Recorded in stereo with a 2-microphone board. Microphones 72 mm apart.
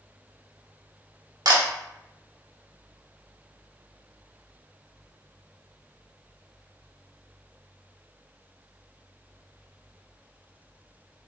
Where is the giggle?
I don't hear a giggle.